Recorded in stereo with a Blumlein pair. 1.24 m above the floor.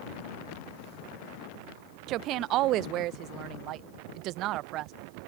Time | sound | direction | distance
2.1 | a woman speaking | 35° right | ?